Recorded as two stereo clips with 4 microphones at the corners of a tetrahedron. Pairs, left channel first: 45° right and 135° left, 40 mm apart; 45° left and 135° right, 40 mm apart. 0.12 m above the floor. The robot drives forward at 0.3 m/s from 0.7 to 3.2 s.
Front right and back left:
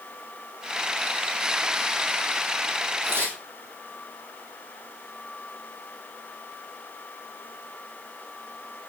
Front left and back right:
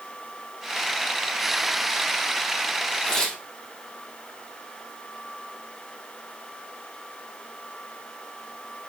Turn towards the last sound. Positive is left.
turn(degrees=120)